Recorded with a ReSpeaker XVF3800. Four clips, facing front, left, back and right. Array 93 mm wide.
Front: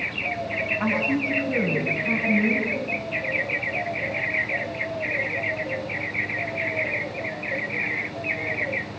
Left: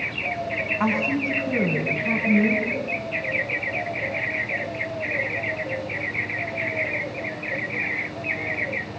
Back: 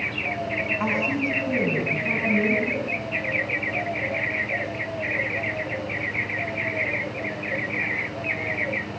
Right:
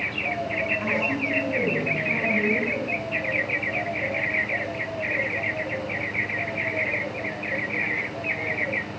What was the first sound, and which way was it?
A woman speaking, 105° left.